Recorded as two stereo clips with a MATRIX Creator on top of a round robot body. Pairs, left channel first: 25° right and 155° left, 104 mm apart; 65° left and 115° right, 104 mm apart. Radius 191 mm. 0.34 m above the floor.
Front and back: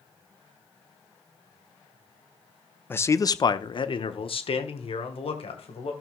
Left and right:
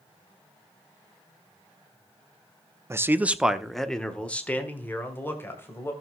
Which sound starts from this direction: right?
A man speaking, at 2.9 s.